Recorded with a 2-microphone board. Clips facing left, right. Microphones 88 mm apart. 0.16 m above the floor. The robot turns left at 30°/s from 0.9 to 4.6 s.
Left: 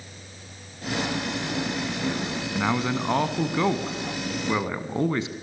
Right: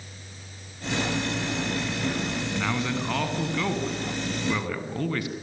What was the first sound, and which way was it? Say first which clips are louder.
A man speaking: left 5 dB; 20° left (ahead or behind).